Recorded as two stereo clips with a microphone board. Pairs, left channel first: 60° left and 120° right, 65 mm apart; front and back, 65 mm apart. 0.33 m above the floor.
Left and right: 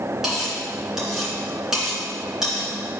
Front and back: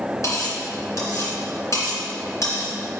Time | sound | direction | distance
0.2 | cutlery clinking | 40° right | 2.5 m